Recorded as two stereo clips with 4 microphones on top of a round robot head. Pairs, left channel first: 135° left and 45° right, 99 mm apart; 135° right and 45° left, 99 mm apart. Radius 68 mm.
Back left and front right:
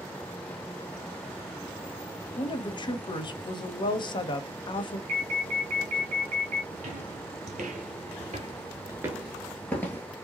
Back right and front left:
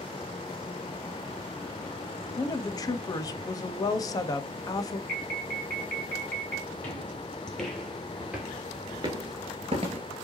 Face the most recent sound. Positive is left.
turn(degrees=70)